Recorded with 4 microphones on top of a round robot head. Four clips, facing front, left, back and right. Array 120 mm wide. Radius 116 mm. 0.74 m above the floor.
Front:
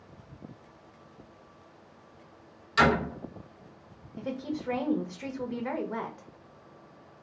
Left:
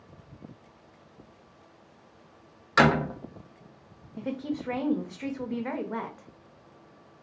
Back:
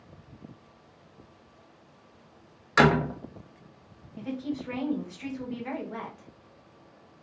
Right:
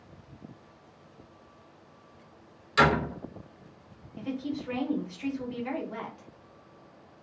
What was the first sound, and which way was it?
A door slam, 140° left.